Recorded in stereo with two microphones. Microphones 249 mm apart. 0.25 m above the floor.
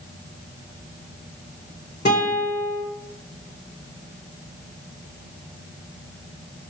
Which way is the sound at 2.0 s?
40° left (ahead or behind).